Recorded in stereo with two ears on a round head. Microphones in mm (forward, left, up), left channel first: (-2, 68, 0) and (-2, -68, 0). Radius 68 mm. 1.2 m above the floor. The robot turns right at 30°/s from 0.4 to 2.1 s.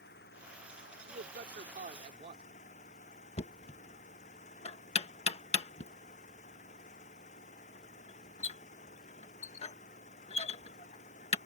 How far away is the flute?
No flute in this recording.